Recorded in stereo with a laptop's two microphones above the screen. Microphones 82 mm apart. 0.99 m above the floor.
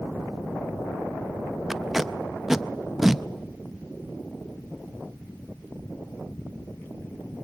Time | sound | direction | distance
1.7 | tape being pulled | 5° right (ahead or behind) | 0.6 m